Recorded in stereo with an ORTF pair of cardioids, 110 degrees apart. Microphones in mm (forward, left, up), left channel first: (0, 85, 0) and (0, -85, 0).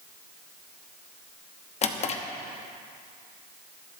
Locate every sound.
1.8 s a drawer: 40° left, 1.0 m